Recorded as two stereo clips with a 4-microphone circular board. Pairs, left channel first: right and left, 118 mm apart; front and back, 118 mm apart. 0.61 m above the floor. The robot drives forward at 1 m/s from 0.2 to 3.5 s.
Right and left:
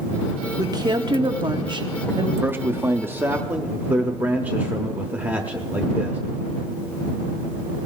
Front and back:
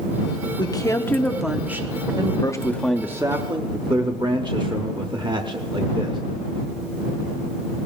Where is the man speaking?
25° left, 0.9 m; by 6.2 s 160° left, 1.0 m.